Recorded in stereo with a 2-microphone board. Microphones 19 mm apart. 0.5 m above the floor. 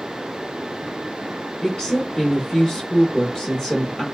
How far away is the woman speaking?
About 0.9 m.